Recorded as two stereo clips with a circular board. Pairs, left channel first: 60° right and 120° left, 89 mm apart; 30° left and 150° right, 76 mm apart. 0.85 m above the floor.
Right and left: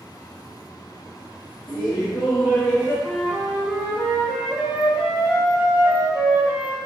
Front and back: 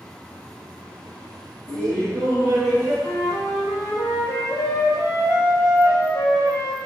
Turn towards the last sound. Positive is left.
turn(degrees=50)